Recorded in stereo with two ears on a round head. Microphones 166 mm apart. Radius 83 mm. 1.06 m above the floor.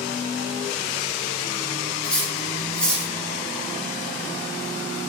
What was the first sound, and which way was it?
Cutlery clinking, 5° left (ahead or behind).